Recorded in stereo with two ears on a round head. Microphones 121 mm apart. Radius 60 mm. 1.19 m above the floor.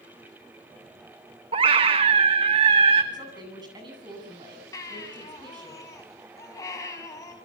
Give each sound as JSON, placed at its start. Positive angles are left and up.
{"t": 1.5, "sound": "a scream", "side_deg": -40, "distance_m": 1.1}
{"t": 3.1, "sound": "a woman speaking", "side_deg": -35, "distance_m": 8.5}
{"t": 4.7, "sound": "a baby crying", "side_deg": 25, "distance_m": 4.5}